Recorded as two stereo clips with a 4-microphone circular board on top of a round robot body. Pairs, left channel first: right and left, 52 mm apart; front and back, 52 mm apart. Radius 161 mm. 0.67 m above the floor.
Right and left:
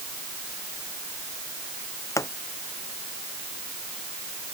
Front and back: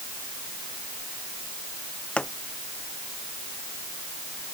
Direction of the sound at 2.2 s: 70° right.